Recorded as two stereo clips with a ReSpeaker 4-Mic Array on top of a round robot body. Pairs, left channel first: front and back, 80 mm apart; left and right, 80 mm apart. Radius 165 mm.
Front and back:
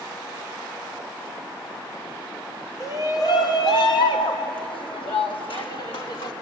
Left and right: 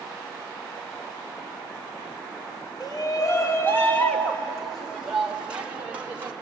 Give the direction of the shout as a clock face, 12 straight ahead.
10 o'clock.